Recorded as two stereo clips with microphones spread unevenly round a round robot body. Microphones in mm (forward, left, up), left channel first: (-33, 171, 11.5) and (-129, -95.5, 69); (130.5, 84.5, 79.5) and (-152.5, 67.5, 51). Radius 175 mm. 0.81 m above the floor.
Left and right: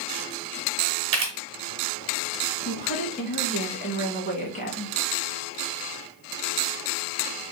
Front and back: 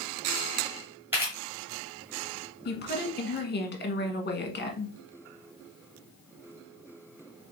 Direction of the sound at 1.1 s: 90° right.